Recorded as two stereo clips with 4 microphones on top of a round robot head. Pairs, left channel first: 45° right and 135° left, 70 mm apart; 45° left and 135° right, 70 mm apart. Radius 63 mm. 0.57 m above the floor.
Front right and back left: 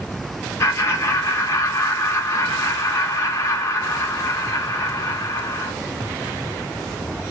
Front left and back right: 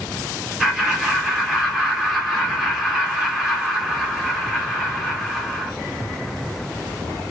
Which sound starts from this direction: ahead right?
Laughter, at 0.6 s.